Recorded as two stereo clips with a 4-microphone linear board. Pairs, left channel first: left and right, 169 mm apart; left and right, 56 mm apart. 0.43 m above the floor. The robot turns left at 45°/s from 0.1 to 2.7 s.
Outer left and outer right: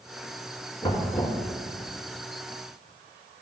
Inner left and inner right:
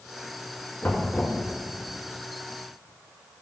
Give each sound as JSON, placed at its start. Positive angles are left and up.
{"t": 0.8, "sound": "knocking", "side_deg": 30, "distance_m": 3.0}